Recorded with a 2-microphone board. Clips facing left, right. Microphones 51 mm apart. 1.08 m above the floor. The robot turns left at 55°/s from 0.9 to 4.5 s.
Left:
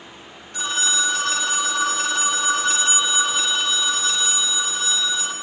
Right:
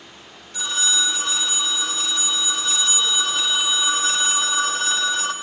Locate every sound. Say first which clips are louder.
0.5 s a phone ringing: left 1 dB; 140° left, 1.0 m; by 5.3 s 60° right, 1.0 m